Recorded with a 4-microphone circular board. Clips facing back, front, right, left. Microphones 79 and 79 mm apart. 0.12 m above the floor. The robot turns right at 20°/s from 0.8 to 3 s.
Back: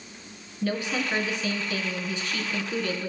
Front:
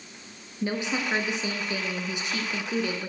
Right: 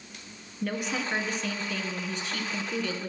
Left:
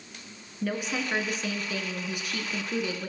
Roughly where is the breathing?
I don't hear breathing.